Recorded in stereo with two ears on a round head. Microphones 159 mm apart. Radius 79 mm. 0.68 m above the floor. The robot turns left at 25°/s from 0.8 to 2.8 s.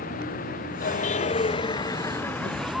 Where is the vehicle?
50° left; by 2.8 s straight ahead.